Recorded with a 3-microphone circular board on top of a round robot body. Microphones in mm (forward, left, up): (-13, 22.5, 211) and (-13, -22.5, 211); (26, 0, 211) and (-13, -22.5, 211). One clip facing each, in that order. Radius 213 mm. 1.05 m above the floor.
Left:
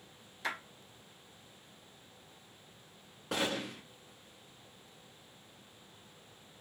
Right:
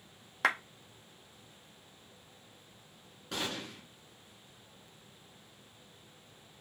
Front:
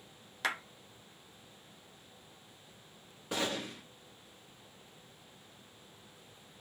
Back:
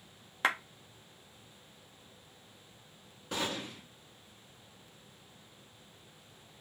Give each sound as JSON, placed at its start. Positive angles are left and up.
{"t": 0.4, "sound": "a clap", "azimuth_deg": -95, "distance_m": 0.9}
{"t": 3.3, "sound": "a gunshot", "azimuth_deg": 105, "distance_m": 0.5}